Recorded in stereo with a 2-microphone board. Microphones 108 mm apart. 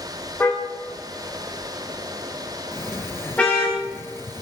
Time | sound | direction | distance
0.4 | a car horn | 20° left (ahead or behind) | 8 m
2.7 | a sliding door | 25° left (ahead or behind) | 0.7 m